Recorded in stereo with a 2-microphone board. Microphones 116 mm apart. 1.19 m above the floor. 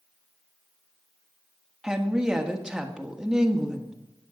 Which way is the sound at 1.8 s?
5° right (ahead or behind).